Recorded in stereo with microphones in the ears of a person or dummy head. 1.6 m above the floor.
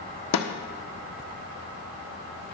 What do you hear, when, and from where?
0.3 s a snare drum: 80° left, 1.3 m